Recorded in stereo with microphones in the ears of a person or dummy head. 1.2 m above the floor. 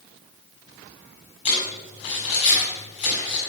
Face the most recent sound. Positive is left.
turn(degrees=40)  # may be behind; listen again after turning